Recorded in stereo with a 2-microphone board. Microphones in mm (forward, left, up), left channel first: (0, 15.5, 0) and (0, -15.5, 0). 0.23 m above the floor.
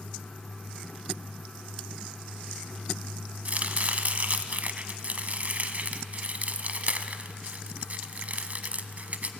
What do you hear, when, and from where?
3.5 s chopping: 50° right (ahead or behind), 1.0 m